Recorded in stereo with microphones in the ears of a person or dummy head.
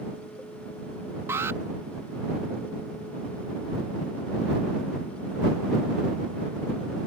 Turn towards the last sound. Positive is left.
turn(degrees=-15)  # may be behind; listen again after turning